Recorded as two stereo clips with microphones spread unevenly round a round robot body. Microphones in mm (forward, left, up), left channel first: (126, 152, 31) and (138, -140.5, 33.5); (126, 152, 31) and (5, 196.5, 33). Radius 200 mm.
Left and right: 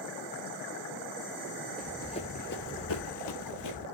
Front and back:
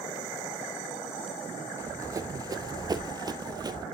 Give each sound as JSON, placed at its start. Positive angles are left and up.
{"t": 1.8, "sound": "running footsteps", "azimuth_deg": 180, "distance_m": 0.9}